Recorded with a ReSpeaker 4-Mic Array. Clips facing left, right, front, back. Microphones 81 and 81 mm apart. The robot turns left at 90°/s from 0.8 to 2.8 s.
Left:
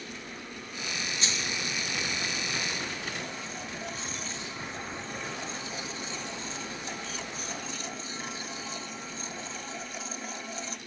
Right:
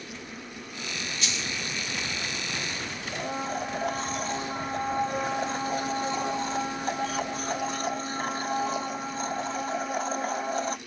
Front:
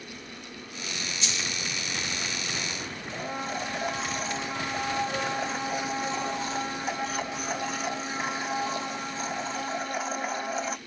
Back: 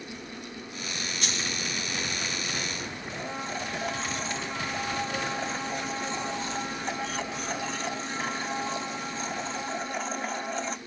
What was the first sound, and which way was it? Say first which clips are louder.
A dropped coin: even, back 2 dB; 145° left.